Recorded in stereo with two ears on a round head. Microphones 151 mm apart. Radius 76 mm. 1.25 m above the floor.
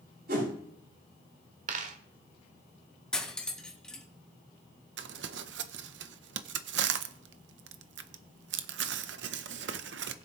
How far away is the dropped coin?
About 1.3 m.